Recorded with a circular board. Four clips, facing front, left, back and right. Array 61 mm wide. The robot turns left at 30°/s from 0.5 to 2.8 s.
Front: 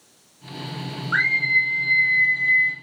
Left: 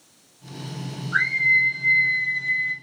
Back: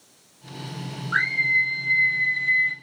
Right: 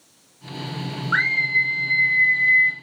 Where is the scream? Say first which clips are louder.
Even, front 2 dB; 70° right, 1.8 m; by 2.7 s 115° right, 1.8 m.